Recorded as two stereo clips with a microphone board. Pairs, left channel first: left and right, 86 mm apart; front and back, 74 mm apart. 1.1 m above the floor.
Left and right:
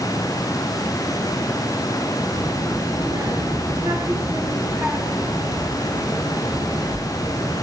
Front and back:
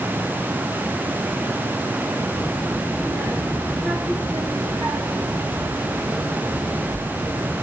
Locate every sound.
2.3 s a child speaking: 120° right, 1.9 m; by 7.6 s 155° left, 2.5 m